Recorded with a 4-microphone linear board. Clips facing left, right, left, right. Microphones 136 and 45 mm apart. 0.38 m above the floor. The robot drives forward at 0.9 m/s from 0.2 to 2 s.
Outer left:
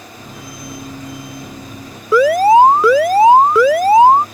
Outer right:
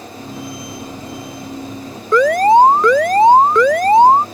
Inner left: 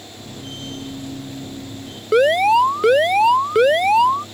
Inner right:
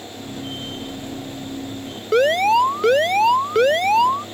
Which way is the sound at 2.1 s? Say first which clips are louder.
Outer left 1 dB, inner left 2 dB; 5° left (ahead or behind).